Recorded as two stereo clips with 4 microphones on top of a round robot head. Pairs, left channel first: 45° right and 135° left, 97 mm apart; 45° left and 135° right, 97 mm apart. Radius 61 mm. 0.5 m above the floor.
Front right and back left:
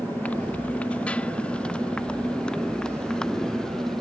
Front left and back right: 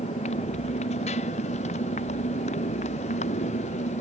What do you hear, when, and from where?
0.0 s a motorcycle: 30° left; by 4.0 s 40° left